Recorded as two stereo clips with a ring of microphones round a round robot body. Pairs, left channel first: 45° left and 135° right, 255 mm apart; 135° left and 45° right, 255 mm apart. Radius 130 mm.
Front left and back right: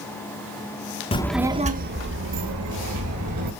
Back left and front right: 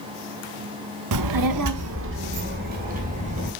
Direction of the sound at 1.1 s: 25° right.